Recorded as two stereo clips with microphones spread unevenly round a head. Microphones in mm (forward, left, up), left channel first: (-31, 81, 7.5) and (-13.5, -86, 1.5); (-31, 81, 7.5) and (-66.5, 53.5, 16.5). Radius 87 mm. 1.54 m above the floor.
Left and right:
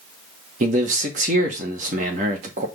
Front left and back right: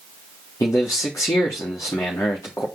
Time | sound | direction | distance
0.6 | a man speaking | 35° right | 1.8 m